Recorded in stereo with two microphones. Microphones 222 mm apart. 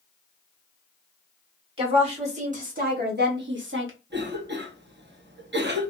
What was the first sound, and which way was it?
A woman speaking, 25° right (ahead or behind).